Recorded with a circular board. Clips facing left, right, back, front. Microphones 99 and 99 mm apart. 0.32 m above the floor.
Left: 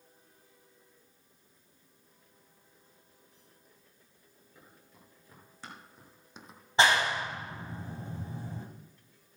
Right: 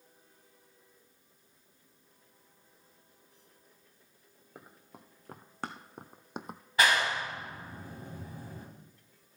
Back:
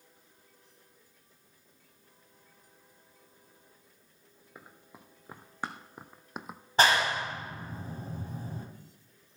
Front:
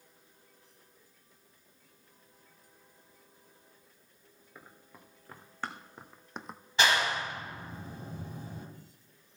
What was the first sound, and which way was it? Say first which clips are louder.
Running footsteps: right 6 dB, back 2 dB; 110° right.